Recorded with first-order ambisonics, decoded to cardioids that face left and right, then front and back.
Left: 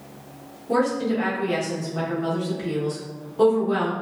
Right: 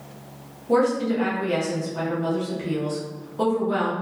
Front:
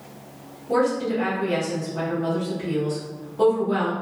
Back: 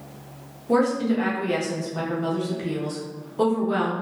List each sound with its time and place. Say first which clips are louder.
0.7 s a woman speaking: right 2 dB, even; 175° right, 0.8 m